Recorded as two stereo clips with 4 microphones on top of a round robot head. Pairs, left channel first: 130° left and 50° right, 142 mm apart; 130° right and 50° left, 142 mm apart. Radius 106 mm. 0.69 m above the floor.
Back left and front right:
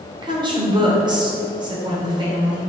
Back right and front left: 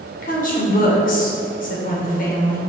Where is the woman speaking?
110° right, 2 m.